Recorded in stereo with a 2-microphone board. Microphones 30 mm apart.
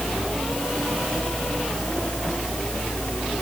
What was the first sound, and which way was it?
Only background noise.